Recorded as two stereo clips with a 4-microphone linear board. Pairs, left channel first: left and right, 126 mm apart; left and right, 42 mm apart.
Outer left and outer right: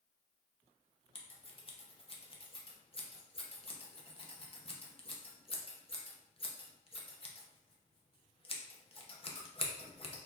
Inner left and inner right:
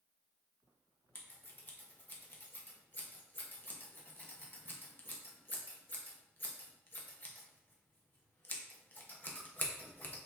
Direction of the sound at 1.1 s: 45° left (ahead or behind).